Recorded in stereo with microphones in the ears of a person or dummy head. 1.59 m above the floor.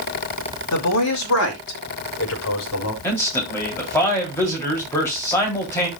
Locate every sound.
0.7 s a man speaking: 75° left (ahead or behind), 2.5 m; by 2.9 s 80° left, 3.5 m
3.0 s a man speaking: 10° left (ahead or behind), 3.5 m